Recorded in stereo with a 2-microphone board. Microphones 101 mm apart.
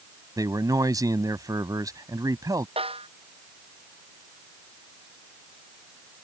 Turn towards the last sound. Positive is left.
turn(degrees=-70)  # may be behind; listen again after turning